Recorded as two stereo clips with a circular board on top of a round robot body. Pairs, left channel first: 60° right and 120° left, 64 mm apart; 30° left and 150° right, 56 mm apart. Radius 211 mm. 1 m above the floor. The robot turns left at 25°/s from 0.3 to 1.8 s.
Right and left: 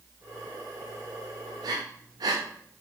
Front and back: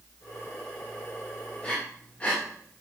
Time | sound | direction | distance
1.6 | breathing | 110° left | 0.7 m